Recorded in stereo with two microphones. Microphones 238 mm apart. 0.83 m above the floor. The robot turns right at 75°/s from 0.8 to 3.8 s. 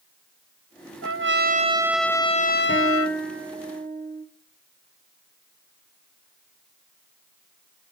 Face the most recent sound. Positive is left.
turn(degrees=-130)